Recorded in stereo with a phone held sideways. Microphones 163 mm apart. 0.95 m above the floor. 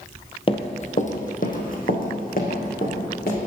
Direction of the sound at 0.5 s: 35° left (ahead or behind).